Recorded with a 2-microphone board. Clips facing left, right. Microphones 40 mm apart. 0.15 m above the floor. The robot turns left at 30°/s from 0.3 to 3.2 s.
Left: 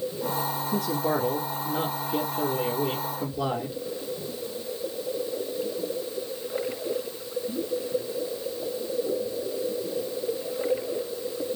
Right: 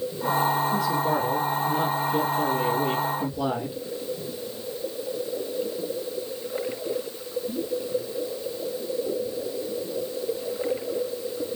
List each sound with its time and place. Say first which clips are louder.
0.7 s a man speaking: right 3 dB; 60° left, 3 m; by 3.8 s 15° right, 3 m